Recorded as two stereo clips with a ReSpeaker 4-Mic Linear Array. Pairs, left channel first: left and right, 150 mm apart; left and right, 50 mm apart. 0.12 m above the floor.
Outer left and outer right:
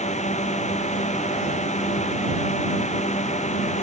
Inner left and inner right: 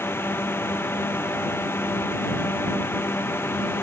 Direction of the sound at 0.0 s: 50° left (ahead or behind).